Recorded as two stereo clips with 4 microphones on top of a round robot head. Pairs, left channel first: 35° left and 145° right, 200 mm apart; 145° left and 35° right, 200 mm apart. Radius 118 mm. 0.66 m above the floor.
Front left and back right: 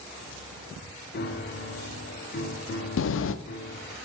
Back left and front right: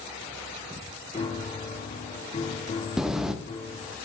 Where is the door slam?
50° left, 0.6 m.